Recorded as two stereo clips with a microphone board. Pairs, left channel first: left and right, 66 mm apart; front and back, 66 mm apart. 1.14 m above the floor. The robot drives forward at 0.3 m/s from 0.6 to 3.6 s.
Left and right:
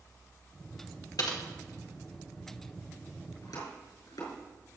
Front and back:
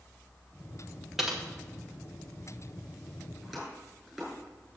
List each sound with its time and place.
1.2 s typing on a keyboard: 95° left, 1.5 m; by 1.4 s 100° left, 1.5 m
3.4 s chopping: 100° left, 5 m